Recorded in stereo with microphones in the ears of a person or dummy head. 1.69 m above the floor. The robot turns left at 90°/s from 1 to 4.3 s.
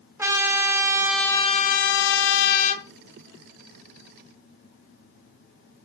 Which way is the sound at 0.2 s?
165° right.